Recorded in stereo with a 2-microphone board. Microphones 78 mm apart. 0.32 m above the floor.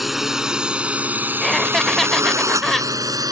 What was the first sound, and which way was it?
A drone, 5° right (ahead or behind).